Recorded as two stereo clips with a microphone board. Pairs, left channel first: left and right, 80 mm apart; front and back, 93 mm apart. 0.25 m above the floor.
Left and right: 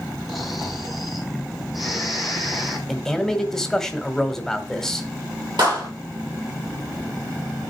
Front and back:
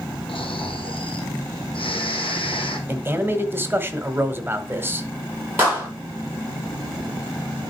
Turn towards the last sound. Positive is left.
turn(degrees=-115)